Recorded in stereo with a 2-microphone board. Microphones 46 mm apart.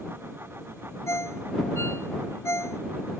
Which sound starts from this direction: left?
A ringtone, at 1.1 s.